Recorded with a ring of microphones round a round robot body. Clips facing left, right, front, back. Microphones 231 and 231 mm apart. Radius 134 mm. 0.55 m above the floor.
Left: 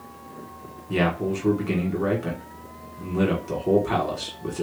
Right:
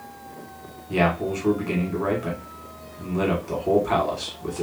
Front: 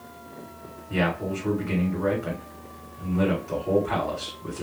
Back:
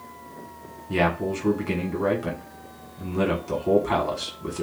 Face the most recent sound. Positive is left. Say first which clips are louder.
# even, back 2 dB
turn(degrees=155)